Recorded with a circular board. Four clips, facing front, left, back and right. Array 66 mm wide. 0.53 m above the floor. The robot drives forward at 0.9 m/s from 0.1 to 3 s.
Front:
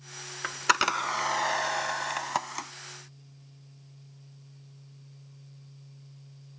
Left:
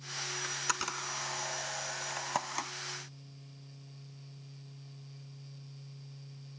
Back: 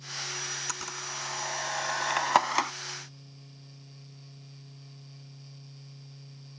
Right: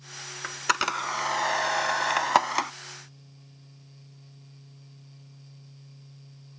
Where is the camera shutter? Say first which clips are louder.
Right 11 dB, front 13 dB; 25° right; by 2.7 s 140° right.